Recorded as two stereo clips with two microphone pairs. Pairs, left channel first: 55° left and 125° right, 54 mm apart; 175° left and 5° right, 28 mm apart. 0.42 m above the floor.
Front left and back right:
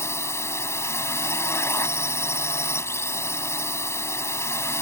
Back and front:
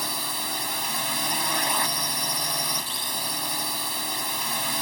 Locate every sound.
0.0 s a drone: 80° left